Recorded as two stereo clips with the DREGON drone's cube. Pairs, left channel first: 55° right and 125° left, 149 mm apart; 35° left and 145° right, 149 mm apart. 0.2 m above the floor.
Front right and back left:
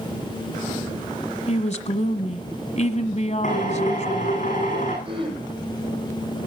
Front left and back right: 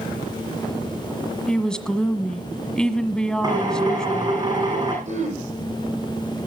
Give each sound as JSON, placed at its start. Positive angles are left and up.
{"t": 1.5, "sound": "a woman speaking", "azimuth_deg": -50, "distance_m": 1.5}
{"t": 3.4, "sound": "a drill", "azimuth_deg": -85, "distance_m": 10.0}
{"t": 5.0, "sound": "throat clearing", "azimuth_deg": 180, "distance_m": 10.0}